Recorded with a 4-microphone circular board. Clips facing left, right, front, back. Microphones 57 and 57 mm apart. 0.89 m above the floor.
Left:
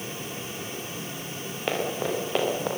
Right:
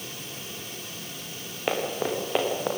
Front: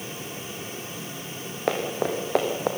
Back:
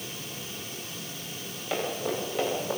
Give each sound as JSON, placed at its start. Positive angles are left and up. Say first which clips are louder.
{"t": 1.7, "sound": "running footsteps", "louder": "even, front 5 dB", "azimuth_deg": -10, "distance_m": 6.0}